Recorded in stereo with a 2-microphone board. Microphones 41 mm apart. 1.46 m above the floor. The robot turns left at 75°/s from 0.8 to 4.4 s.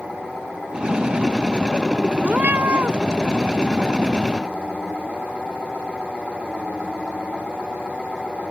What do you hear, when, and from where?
2.2 s a cat meowing: 50° right; by 3.0 s 105° right